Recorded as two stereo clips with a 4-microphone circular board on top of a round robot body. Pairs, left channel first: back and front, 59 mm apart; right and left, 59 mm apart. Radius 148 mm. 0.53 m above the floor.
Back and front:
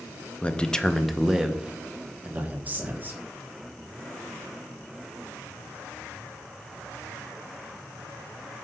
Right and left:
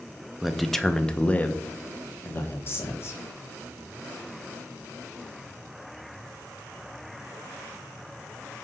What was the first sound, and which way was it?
A man speaking, 170° left.